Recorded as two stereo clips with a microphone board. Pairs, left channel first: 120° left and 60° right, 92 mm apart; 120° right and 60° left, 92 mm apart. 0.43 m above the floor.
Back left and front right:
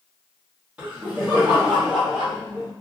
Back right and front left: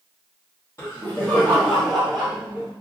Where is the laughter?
125° right, 1.2 m; by 2.7 s 15° left, 1.1 m.